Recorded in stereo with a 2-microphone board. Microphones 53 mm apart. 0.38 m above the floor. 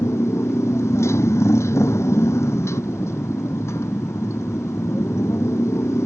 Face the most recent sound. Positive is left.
turn(degrees=65)  # may be behind; listen again after turning